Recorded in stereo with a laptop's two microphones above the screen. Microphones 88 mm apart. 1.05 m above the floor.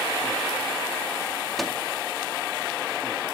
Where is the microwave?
Centre (ahead or behind), 1.9 m.